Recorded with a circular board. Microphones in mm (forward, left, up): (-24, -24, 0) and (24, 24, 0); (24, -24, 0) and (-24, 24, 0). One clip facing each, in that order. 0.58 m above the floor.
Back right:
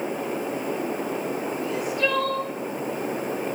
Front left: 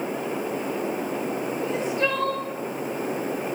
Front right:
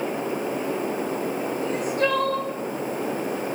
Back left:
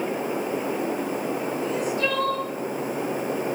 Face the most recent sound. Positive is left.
turn(degrees=-10)